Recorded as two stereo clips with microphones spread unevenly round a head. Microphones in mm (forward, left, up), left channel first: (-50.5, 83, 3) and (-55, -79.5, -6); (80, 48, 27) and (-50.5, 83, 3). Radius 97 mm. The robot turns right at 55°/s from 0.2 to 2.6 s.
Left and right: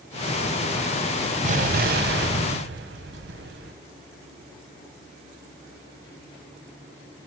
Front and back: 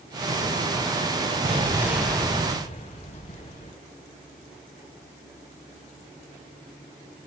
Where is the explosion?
135° right, 2 m; by 3.7 s 70° right, 2 m.